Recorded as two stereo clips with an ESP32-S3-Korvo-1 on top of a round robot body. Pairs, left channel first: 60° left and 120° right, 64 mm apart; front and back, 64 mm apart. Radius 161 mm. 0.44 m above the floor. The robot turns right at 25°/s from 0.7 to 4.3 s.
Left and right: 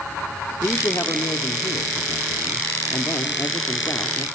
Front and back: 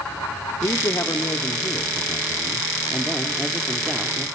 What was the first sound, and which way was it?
A man speaking, 15° left.